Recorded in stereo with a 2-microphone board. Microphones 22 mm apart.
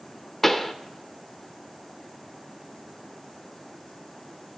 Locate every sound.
0.4 s a pop: 15° left (ahead or behind), 0.5 m